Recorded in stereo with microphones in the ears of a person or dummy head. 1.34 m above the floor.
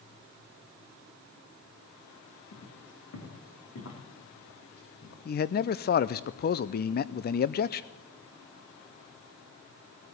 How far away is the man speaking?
About 0.5 m.